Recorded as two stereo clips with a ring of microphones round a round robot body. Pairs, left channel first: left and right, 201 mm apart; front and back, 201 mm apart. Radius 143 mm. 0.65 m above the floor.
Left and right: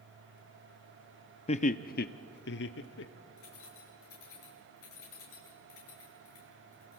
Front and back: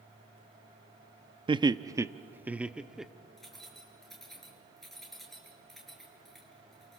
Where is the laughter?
130° left, 0.7 m; by 3.1 s 90° left, 1.4 m.